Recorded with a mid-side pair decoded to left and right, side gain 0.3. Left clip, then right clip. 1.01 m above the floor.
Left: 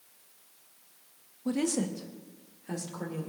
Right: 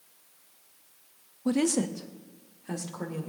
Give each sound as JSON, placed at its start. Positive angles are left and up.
{"t": 1.4, "sound": "a woman speaking", "azimuth_deg": -55, "distance_m": 0.9}